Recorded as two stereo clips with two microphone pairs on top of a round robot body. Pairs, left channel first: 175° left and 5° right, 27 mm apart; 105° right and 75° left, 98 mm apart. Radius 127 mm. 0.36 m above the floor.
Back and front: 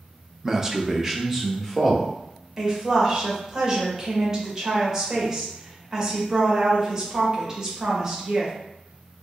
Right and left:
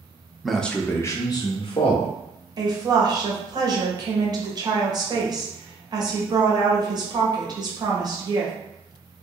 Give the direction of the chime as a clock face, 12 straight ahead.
I don't hear a chime.